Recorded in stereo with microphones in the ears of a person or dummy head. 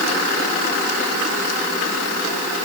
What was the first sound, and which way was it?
Only background noise.